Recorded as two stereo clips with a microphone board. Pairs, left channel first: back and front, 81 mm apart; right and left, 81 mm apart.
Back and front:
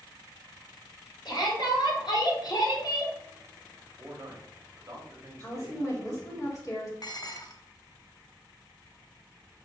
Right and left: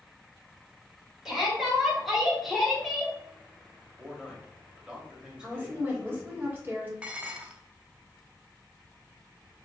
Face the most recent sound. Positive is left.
turn(degrees=160)